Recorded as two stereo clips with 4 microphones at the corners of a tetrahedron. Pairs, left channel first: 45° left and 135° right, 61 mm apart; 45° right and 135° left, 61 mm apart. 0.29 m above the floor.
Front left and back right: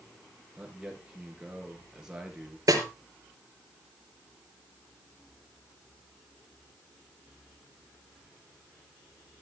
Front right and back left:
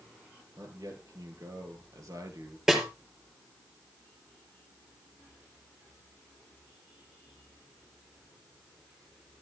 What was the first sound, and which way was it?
A man speaking, 145° left.